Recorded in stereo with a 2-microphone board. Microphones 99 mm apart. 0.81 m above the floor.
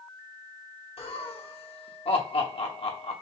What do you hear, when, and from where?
1.0 s laughter: 75° left (ahead or behind), 1.4 m